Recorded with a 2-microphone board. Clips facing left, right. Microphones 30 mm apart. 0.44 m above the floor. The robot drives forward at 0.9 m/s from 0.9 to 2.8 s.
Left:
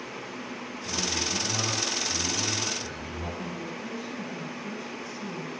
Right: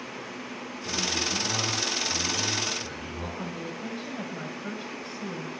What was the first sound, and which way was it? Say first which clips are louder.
A man speaking: right 1 dB; 55° right (ahead or behind).